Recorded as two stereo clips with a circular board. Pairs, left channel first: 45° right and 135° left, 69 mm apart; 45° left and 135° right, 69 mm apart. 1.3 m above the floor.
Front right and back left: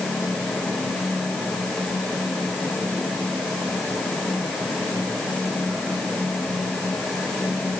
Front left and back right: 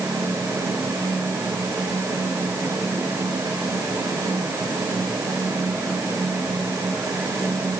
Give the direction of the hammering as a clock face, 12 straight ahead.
I don't hear hammering.